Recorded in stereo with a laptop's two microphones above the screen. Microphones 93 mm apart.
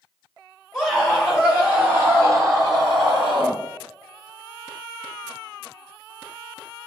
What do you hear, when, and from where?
0.7 s a scream: 5° right (ahead or behind), 1.8 m; by 3.6 s 55° right (ahead or behind), 1.3 m